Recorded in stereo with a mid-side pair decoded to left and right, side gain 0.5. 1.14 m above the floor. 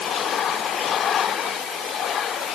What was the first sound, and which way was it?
Only background noise.